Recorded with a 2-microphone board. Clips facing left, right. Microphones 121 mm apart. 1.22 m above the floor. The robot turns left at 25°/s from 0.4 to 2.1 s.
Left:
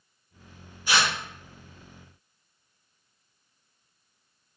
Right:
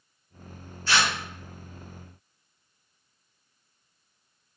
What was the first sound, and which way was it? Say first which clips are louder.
Tearing paper: even; 15° left (ahead or behind).